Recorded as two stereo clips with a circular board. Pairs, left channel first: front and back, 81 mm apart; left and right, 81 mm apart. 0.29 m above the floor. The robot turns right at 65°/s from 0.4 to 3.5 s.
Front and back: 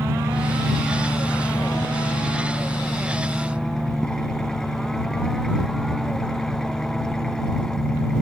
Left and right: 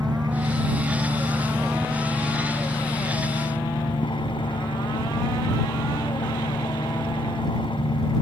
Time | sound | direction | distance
0.0 | an engine running | 120° right | ?